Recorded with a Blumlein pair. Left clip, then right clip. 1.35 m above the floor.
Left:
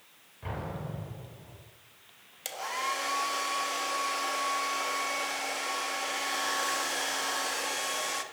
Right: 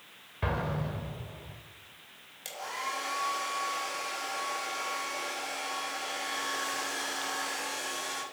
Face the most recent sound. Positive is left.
turn(degrees=15)